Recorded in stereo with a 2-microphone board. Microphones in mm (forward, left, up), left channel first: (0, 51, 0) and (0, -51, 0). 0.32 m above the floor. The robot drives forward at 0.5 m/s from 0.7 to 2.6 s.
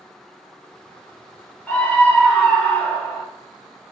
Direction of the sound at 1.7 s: 15° left (ahead or behind).